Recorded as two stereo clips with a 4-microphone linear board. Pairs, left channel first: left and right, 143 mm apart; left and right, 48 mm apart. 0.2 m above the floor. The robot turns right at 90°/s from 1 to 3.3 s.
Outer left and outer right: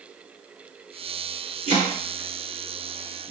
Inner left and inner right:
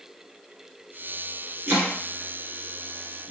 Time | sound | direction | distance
1.7 | chopping | 45° right (ahead or behind) | 2 m